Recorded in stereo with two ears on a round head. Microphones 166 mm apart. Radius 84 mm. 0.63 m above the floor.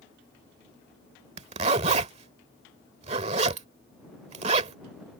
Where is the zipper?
35° right (ahead or behind).